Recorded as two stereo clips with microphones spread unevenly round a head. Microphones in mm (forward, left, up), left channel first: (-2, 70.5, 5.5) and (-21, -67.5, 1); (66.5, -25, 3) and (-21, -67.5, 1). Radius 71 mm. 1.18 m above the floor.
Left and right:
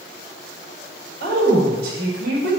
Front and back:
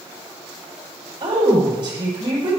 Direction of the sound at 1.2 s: 115° right.